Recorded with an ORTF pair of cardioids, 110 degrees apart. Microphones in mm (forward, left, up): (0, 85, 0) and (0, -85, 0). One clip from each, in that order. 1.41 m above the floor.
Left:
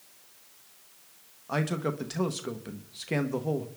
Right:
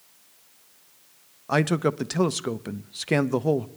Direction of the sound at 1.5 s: 40° right.